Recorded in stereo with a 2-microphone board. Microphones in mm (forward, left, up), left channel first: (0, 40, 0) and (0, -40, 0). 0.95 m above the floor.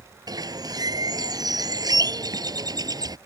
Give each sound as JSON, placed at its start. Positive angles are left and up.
{"t": 0.3, "sound": "a bird", "side_deg": -55}